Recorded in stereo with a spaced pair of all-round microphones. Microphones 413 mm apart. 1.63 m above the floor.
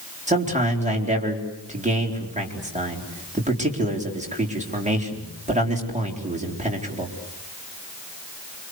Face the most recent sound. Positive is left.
turn(degrees=-15)  # may be behind; listen again after turning